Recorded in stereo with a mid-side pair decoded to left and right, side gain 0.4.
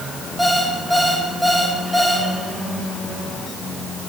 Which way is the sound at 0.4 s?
5° right.